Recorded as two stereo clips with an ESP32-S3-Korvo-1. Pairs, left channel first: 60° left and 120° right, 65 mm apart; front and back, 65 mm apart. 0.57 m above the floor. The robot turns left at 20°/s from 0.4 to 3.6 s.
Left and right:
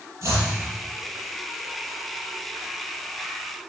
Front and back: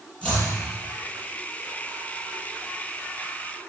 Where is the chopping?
70° right, 8.5 m.